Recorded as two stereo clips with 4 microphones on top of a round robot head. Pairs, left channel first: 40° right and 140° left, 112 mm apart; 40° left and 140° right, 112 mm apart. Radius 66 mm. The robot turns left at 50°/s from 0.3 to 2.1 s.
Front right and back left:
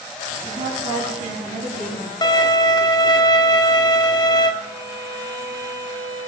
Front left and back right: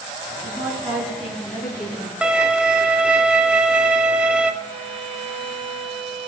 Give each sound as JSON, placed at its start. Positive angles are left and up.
{"t": 0.4, "sound": "a woman speaking", "azimuth_deg": 170, "distance_m": 3.5}
{"t": 2.2, "sound": "a violin", "azimuth_deg": -65, "distance_m": 0.8}
{"t": 4.6, "sound": "a violin", "azimuth_deg": -110, "distance_m": 1.7}